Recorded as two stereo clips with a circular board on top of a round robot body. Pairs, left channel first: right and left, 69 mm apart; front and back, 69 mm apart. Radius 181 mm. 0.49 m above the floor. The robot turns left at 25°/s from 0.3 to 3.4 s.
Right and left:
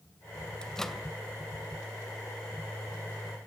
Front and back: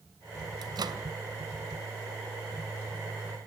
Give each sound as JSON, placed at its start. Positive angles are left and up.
{"t": 0.6, "sound": "a microwave", "azimuth_deg": -170, "distance_m": 2.0}